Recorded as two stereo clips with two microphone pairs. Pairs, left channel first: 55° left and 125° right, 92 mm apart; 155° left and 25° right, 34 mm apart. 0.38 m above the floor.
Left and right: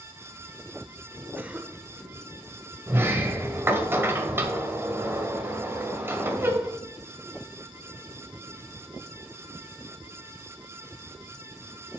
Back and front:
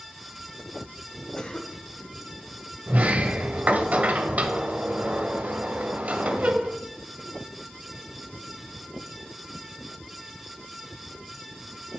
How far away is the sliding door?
About 1.1 m.